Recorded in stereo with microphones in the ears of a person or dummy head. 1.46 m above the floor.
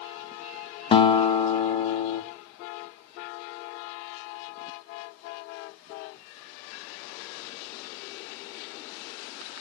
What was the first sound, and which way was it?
A guitar, 30° left (ahead or behind).